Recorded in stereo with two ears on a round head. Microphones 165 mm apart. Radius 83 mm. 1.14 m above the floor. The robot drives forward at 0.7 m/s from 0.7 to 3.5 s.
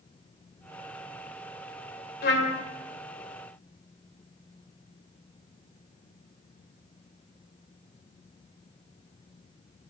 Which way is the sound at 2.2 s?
55° left (ahead or behind).